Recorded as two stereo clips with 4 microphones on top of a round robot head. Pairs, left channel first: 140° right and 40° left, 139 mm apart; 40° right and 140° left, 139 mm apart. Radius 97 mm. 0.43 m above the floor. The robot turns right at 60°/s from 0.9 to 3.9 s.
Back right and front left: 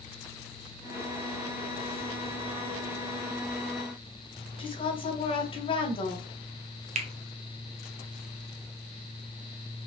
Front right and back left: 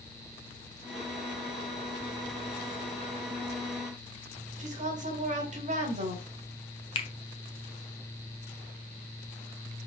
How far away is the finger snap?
About 1.4 m.